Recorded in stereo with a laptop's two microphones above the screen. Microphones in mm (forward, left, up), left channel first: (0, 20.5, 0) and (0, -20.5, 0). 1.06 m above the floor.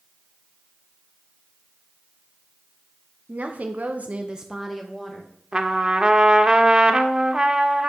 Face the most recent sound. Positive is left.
turn(degrees=-20)  # may be behind; listen again after turning